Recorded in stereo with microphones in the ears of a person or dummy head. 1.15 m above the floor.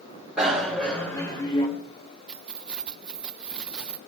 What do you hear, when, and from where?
0.4 s a bicycle bell: centre (ahead or behind), 3.5 m; by 1.7 s 35° left (ahead or behind), 3 m
2.3 s keys jangling: 5° right (ahead or behind), 0.5 m